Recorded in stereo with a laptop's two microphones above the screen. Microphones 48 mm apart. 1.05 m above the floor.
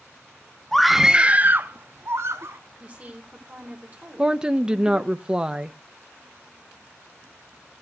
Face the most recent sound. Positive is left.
turn(degrees=-15)  # may be behind; listen again after turning